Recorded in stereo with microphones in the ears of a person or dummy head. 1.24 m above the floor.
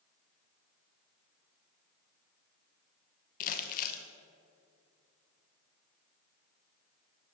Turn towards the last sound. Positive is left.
turn(degrees=50)  # may be behind; listen again after turning